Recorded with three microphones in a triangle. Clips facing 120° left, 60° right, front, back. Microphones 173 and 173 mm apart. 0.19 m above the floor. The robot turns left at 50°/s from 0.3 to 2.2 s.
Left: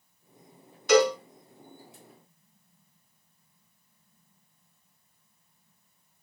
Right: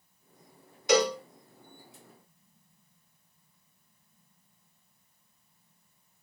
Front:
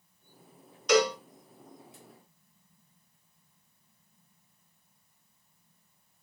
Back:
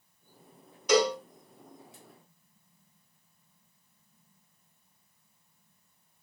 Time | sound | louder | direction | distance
0.9 | a cowbell | left 4 dB, even | 105° right | 1.7 m